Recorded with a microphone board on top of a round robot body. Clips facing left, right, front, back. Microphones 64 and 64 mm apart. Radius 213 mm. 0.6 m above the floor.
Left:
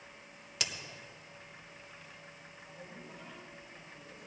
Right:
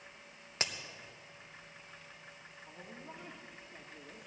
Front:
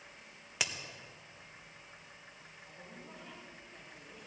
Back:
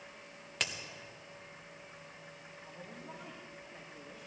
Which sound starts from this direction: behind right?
A woman speaking, at 2.7 s.